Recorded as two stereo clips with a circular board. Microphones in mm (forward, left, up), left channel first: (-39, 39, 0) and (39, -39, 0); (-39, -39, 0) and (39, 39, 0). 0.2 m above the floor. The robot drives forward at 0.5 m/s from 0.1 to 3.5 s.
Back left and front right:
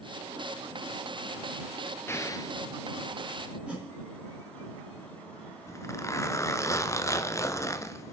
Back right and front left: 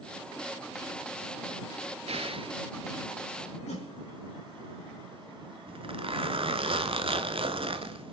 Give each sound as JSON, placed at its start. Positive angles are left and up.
{"t": 2.1, "sound": "an explosion", "azimuth_deg": 70, "distance_m": 0.9}
{"t": 3.7, "sound": "a whoosh", "azimuth_deg": -125, "distance_m": 6.5}
{"t": 5.7, "sound": "a zipper", "azimuth_deg": 75, "distance_m": 0.9}